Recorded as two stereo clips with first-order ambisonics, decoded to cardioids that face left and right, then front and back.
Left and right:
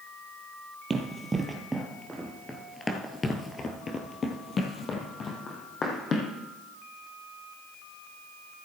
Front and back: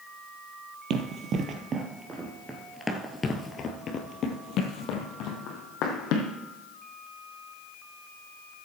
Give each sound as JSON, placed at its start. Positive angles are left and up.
{"t": 0.9, "sound": "running footsteps", "azimuth_deg": -155, "distance_m": 1.5}